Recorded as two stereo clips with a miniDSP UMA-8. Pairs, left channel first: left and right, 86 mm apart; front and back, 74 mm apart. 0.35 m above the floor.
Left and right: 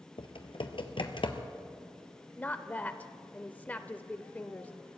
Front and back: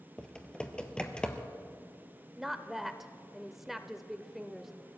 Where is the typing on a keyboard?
80° left, 1.1 m.